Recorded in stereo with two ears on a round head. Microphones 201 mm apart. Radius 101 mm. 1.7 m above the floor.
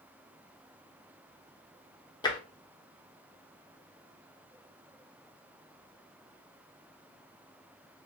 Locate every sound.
2.2 s tapping: 20° left (ahead or behind), 1.0 m